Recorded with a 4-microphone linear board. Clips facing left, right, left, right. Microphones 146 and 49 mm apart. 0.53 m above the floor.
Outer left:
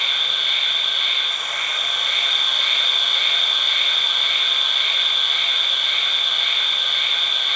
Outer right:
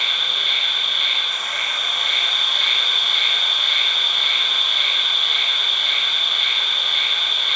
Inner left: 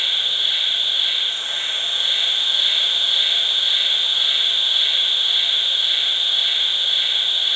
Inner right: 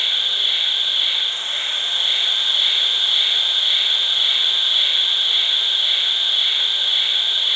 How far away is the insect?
About 0.7 m.